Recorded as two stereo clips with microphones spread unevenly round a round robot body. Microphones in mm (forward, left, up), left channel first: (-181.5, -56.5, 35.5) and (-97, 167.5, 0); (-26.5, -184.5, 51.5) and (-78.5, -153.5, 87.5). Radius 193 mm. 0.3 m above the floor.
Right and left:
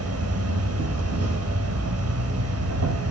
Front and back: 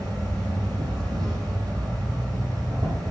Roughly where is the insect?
Left.